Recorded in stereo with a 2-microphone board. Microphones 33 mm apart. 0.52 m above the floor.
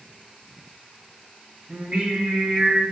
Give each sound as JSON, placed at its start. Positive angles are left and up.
{"t": 1.7, "sound": "singing", "side_deg": -35, "distance_m": 1.4}